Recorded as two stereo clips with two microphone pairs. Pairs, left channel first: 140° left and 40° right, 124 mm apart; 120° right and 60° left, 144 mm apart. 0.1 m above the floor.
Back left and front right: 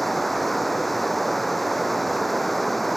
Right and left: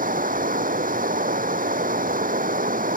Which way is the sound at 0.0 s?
55° left.